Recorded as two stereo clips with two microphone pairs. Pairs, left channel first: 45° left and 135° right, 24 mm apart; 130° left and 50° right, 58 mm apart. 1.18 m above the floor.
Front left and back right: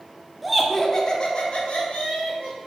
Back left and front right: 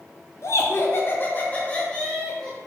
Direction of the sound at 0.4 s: 135° left.